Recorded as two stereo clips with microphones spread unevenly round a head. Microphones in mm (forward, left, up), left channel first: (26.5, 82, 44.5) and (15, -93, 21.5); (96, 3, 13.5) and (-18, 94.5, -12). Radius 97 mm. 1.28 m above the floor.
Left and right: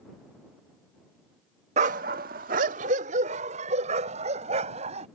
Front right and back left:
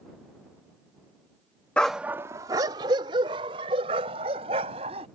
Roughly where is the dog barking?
Right.